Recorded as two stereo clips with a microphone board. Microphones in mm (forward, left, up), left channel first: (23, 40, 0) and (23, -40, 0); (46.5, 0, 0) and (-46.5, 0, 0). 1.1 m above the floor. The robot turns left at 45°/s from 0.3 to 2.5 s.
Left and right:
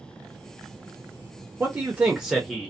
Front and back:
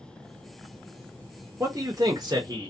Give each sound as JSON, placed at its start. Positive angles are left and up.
{"t": 1.6, "sound": "a man speaking", "azimuth_deg": -140, "distance_m": 0.6}